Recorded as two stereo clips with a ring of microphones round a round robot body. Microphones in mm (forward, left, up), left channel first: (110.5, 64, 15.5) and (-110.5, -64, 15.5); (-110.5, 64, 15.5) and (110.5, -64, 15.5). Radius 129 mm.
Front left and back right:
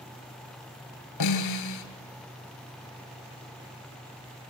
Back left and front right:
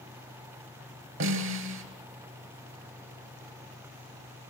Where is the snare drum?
10° left, 4.5 m.